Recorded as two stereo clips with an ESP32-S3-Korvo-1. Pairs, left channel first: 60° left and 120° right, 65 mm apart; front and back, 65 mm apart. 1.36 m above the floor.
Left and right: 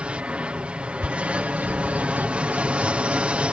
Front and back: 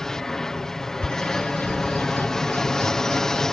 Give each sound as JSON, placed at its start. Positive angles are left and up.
{"t": 0.0, "sound": "an aircraft", "azimuth_deg": -75}
{"t": 1.0, "sound": "a bird", "azimuth_deg": -60}